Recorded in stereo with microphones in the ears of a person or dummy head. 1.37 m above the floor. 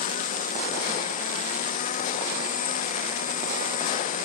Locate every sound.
0.0 s a lawn mower: 50° left (ahead or behind)